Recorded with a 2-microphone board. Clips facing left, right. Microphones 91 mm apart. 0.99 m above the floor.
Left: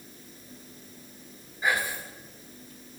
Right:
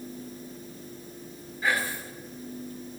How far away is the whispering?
About 1.0 m.